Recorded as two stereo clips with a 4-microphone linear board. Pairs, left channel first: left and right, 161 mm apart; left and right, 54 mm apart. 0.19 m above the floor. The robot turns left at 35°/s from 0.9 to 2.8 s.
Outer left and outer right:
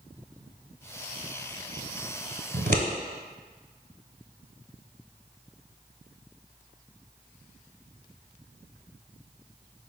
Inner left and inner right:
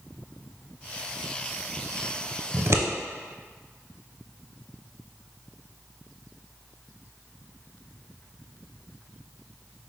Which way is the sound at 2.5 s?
70° right (ahead or behind).